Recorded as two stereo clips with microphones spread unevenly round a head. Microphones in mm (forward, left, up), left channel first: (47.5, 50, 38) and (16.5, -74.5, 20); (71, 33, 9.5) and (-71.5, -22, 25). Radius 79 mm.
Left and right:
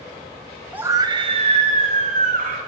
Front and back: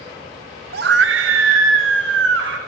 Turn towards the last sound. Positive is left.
turn(degrees=-140)